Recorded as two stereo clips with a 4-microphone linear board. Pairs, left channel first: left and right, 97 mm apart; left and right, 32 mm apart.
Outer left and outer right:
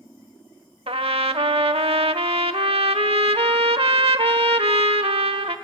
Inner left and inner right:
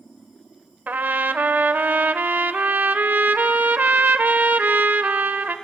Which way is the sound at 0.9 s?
80° right.